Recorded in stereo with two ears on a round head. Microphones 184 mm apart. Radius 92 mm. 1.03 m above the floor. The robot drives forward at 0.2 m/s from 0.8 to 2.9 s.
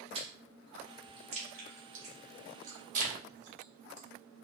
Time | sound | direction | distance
0.1 | chewing | 30° right (ahead or behind) | 1.0 m